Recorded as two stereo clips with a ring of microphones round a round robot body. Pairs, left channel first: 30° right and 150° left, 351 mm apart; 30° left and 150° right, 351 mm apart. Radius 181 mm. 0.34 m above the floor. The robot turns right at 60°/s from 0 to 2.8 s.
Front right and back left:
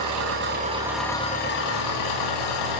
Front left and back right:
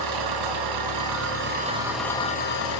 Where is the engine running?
Straight behind, 1.9 m; by 2.8 s 10° right, 1.9 m.